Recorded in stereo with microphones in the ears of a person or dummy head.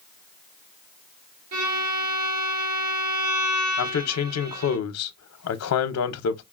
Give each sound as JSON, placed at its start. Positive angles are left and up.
{"t": 1.5, "sound": "a violin", "side_deg": -80, "distance_m": 2.0}
{"t": 3.8, "sound": "a man speaking", "side_deg": 80, "distance_m": 0.5}